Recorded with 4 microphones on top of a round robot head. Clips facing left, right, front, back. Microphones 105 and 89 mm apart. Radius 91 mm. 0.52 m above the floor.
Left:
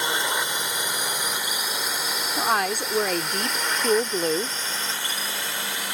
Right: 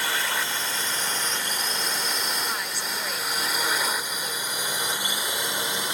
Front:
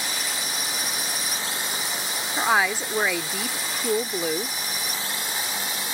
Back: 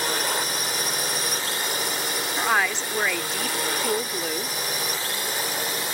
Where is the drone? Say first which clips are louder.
Left 2 dB, back 6 dB; 155° left; by 5.9 s 155° right.